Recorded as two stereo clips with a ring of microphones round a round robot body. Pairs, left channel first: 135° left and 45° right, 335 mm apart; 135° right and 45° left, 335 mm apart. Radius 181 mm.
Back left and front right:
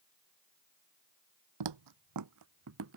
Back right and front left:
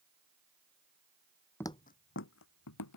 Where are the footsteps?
50° right; by 3.0 s 95° right.